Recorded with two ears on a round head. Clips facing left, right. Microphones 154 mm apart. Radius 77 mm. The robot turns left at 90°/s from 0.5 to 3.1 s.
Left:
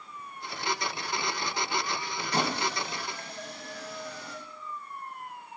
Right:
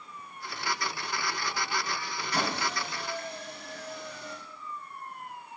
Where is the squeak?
25° left (ahead or behind), 0.6 m; by 4.4 s 60° left (ahead or behind), 0.6 m.